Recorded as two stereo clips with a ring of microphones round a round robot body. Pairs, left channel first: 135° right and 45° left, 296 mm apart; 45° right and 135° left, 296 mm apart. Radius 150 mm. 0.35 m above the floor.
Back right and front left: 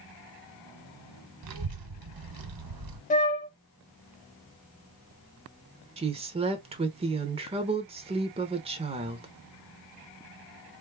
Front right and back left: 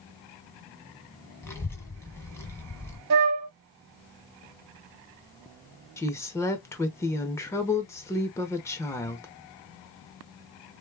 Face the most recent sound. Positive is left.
turn(degrees=20)